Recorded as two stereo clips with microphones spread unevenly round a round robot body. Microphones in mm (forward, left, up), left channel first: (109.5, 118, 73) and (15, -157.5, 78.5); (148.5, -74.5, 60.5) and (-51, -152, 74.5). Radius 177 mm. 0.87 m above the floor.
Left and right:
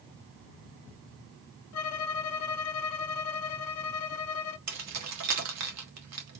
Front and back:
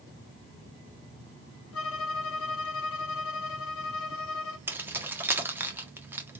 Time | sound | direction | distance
1.7 | a violin | 40° left | 0.6 m
4.7 | keys jangling | 75° right | 1.5 m